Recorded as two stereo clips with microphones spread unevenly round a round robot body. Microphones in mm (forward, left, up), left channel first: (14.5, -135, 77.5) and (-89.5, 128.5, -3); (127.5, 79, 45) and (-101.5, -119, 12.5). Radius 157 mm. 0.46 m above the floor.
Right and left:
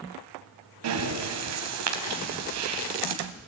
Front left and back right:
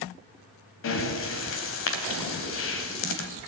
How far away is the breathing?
About 3 m.